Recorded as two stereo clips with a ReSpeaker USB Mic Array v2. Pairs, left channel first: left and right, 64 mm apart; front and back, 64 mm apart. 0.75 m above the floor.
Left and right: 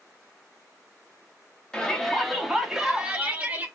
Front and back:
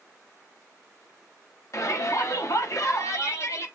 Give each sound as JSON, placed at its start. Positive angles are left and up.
{"t": 1.7, "sound": "a shout", "azimuth_deg": 15, "distance_m": 1.8}